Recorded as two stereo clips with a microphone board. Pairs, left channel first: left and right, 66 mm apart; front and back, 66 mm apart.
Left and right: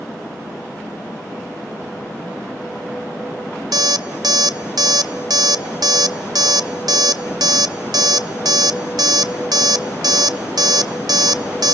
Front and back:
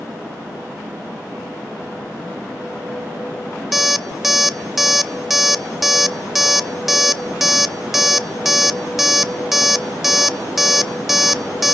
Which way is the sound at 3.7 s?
95° right.